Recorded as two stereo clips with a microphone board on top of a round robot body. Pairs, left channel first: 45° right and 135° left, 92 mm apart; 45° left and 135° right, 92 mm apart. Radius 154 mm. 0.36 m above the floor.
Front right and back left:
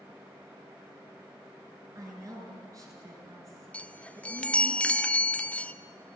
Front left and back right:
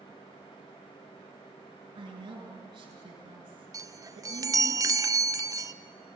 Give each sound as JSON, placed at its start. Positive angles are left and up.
{"t": 1.9, "sound": "a woman speaking", "azimuth_deg": -170, "distance_m": 6.0}
{"t": 3.7, "sound": "a chime", "azimuth_deg": -115, "distance_m": 0.9}